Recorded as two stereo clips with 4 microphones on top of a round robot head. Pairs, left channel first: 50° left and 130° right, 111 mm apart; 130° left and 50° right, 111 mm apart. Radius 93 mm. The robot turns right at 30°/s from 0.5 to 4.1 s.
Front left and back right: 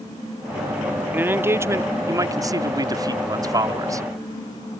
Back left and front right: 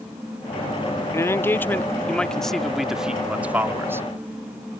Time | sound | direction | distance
1.1 | a man speaking | 170° left | ?